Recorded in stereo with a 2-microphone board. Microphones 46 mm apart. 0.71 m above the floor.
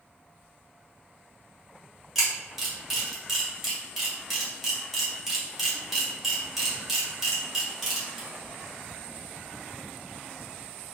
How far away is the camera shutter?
About 1.8 m.